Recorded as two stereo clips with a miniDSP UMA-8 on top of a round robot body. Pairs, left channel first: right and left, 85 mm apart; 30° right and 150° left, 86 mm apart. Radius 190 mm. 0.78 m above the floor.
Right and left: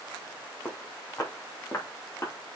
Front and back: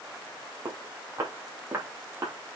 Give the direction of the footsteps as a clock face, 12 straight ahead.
5 o'clock.